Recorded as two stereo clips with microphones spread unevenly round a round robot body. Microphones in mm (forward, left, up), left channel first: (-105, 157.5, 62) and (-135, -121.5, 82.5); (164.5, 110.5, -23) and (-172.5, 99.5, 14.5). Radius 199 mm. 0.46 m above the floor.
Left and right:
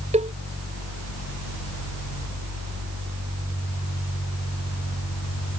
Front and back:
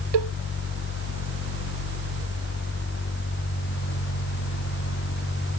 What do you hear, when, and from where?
0.1 s a cowbell: 165° right